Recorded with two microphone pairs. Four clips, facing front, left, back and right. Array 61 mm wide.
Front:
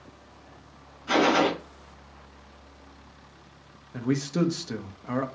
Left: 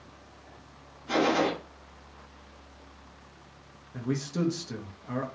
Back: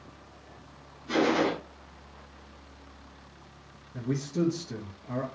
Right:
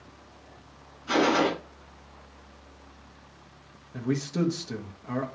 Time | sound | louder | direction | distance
1.1 | a gunshot | right 2 dB, front 3 dB | 35° right | 6 m
3.9 | a man speaking | right 3 dB, front 4 dB | 5° right | 1.6 m